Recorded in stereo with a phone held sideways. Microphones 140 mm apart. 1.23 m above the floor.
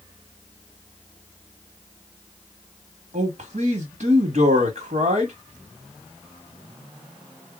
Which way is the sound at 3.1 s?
60° right (ahead or behind).